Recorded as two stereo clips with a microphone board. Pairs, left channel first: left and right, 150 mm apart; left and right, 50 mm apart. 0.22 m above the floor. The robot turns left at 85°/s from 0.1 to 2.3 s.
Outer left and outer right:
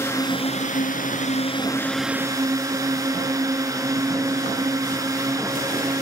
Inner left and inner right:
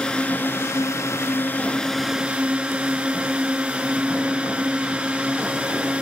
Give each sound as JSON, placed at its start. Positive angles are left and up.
{"t": 0.0, "sound": "a drone", "azimuth_deg": 160}